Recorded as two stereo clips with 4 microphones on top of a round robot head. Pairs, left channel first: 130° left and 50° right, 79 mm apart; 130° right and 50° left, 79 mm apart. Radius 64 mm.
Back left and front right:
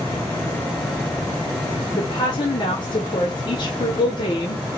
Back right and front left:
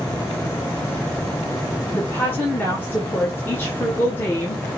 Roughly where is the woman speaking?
Behind.